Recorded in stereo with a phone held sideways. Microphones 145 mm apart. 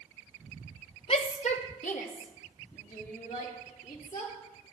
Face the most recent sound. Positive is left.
turn(degrees=75)  # may be behind; listen again after turning